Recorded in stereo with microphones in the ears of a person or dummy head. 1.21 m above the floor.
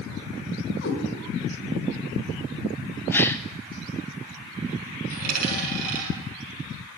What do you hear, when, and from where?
0.8 s a cat meowing: 65° left (ahead or behind), 4 m
3.1 s a gasp: 10° left (ahead or behind), 0.5 m
5.1 s a dropped coin: 50° right (ahead or behind), 5.5 m